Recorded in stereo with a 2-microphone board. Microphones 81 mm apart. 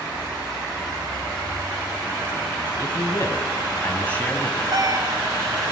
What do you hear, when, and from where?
2.8 s a man speaking: 35° left (ahead or behind), 1.7 m; by 4.6 s 15° left (ahead or behind), 1.9 m
4.7 s a cat meowing: 50° right (ahead or behind), 1.2 m